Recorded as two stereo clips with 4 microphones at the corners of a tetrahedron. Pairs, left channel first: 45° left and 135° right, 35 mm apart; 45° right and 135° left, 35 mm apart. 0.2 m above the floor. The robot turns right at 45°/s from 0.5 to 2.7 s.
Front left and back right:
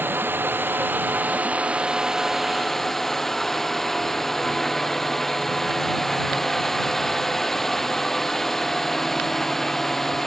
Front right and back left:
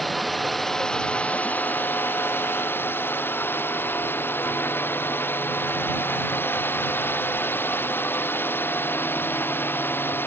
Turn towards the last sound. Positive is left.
turn(degrees=-35)